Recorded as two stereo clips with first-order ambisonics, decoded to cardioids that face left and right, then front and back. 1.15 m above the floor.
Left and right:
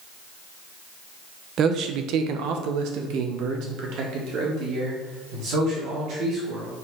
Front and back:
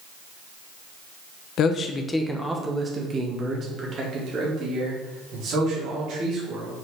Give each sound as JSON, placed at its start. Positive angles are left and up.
{"t": 1.6, "sound": "a man speaking", "azimuth_deg": -40, "distance_m": 0.7}